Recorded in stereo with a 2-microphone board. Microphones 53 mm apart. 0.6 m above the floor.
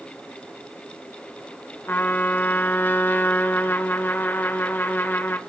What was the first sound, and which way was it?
A trumpet, 40° left (ahead or behind).